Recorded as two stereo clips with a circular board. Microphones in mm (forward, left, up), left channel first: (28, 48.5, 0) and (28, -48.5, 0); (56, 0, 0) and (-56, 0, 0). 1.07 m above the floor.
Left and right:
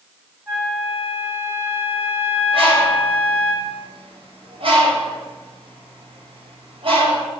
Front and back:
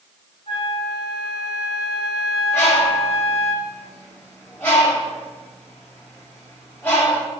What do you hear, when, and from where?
0.5 s a flute: 25° right, 4.5 m
2.5 s a bird: 70° right, 6.5 m